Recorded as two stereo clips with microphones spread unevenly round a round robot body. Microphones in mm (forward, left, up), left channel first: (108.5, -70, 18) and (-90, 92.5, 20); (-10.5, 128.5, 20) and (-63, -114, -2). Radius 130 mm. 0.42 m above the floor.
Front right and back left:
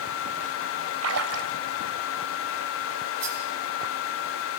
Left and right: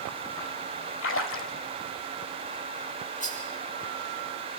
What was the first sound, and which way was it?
A splash, 115° left.